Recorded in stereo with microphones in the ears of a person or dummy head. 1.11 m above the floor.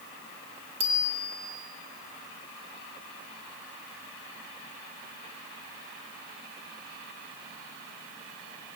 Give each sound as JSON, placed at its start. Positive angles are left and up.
{"t": 0.8, "sound": "a bicycle bell", "side_deg": -30, "distance_m": 2.5}